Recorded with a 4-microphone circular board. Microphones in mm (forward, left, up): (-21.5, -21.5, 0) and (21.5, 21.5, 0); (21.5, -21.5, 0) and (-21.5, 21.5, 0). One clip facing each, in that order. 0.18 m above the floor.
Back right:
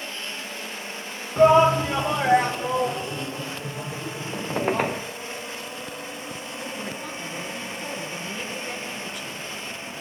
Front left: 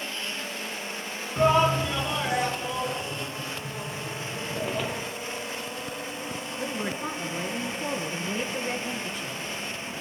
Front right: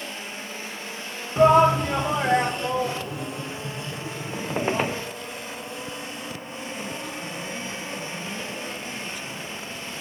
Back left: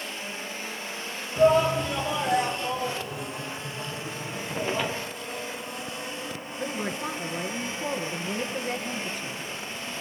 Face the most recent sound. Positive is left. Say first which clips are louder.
# front left 4 dB, back left 5 dB
turn(degrees=95)